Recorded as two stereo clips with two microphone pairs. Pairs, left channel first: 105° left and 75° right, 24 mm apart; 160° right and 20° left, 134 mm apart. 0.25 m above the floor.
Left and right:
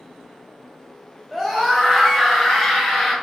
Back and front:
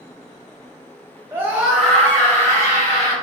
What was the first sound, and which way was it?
A scream, 5° right.